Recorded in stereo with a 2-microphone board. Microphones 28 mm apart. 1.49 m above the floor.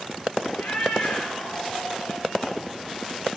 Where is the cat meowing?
70° left (ahead or behind), 5 m.